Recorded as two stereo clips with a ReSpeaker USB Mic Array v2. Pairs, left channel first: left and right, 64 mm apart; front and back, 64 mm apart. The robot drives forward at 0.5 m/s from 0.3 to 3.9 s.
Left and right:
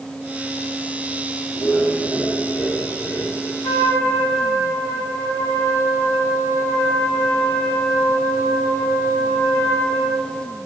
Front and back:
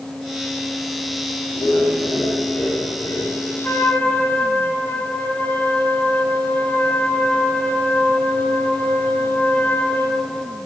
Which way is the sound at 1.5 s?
45° left.